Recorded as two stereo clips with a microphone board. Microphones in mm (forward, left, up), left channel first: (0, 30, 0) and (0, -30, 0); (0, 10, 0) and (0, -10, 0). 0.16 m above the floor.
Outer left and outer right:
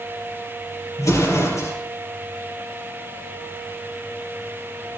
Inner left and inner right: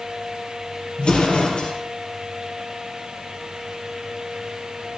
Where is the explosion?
65° left (ahead or behind), 4 m.